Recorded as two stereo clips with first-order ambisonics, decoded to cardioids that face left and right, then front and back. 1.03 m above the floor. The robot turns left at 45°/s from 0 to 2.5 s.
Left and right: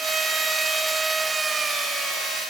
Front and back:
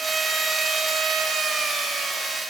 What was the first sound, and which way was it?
Only background noise.